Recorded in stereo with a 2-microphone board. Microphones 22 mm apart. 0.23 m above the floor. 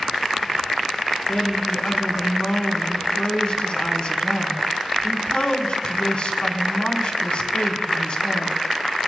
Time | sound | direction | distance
1.3 | a woman speaking | 50° left (ahead or behind) | 2.5 m